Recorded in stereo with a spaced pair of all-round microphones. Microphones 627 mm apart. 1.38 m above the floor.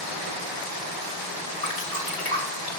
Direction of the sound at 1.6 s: 75° left (ahead or behind).